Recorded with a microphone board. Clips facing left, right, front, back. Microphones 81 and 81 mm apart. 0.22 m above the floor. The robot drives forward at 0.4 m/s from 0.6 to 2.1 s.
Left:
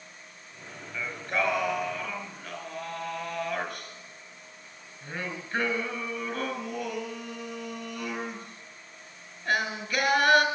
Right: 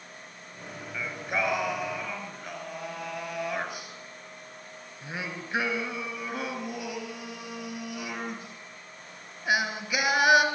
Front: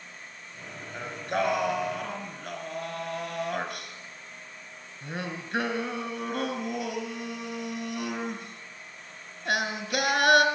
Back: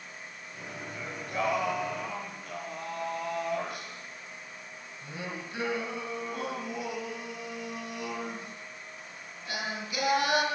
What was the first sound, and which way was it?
Singing, 10° right.